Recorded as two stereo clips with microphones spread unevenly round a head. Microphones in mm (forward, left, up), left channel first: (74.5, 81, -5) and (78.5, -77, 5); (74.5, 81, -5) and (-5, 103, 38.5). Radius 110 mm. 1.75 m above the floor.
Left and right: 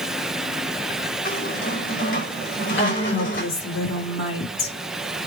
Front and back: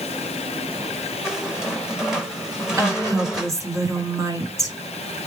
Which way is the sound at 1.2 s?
95° left.